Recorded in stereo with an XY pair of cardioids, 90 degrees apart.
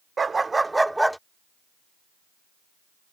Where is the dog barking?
35° right; by 1.2 s straight ahead.